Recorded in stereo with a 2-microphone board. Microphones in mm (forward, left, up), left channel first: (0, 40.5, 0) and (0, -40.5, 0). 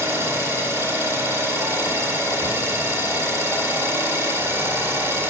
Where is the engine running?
30° right (ahead or behind), 2.0 m.